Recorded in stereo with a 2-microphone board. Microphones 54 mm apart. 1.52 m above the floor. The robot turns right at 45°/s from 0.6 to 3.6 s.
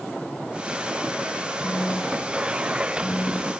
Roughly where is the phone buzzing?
Ahead left.